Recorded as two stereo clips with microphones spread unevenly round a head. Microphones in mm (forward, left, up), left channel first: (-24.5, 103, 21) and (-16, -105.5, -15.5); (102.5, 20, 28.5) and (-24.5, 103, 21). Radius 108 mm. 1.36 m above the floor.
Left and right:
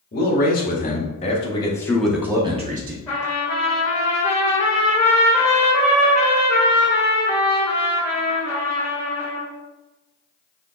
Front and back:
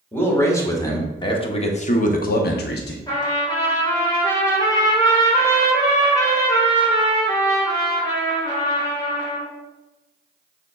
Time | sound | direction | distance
0.1 | a man speaking | 40° left | 1.7 m
3.1 | a trumpet | 20° left | 1.7 m